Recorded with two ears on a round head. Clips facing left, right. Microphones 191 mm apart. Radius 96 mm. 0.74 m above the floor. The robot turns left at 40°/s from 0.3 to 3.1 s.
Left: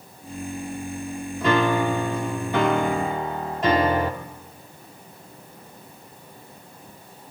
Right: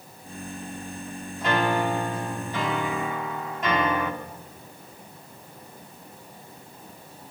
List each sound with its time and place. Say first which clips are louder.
1.4 s a piano: left 4 dB; 95° left, 1.3 m; by 4.1 s 30° left, 1.3 m